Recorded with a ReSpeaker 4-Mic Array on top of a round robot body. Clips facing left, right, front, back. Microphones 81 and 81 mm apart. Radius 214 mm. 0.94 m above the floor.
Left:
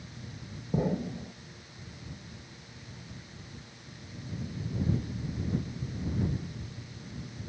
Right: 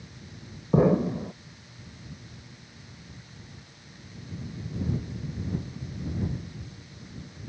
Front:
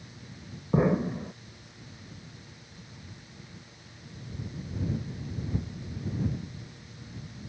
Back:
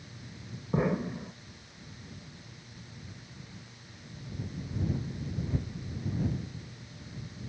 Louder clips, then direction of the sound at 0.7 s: Right 9 dB, front 4 dB; 80° right.